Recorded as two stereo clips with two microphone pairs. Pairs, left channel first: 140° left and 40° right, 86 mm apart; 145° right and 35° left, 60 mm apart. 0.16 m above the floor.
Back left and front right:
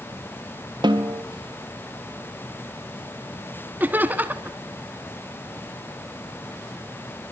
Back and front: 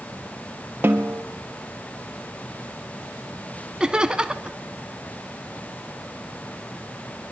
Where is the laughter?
15° right, 1.2 m.